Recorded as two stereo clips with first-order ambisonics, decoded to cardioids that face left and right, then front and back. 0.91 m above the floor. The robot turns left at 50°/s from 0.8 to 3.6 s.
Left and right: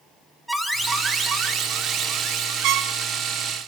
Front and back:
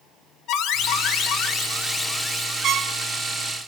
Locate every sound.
0.5 s an alarm: straight ahead, 1.3 m; by 3.3 s 125° right, 1.3 m
2.6 s a trumpet: 125° right, 1.0 m; by 2.9 s 140° right, 1.0 m